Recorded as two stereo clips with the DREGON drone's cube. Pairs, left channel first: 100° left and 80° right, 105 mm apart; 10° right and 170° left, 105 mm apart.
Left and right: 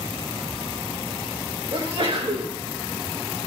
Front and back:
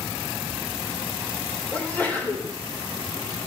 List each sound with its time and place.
1.7 s a sneeze: 85° right, 2 m